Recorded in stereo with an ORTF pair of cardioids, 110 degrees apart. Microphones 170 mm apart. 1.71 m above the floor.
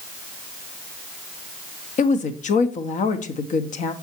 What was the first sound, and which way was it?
A woman speaking, 50° left.